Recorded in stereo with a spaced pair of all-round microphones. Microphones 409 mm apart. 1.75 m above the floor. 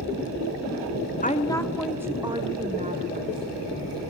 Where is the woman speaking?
20° left (ahead or behind), 0.9 m; by 3.7 s 25° right (ahead or behind), 2.5 m.